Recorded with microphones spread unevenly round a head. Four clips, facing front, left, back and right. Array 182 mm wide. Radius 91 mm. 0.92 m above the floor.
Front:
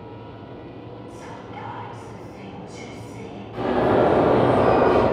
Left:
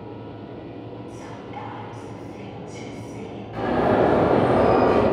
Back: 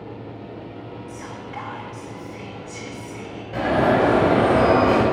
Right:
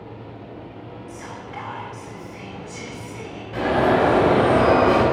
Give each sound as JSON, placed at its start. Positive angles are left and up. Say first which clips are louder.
{"t": 1.1, "sound": "whispering", "louder": "even, back 2 dB", "azimuth_deg": 145, "distance_m": 2.0}
{"t": 3.5, "sound": "an alarm", "louder": "right 1 dB, back 1 dB", "azimuth_deg": 165, "distance_m": 4.5}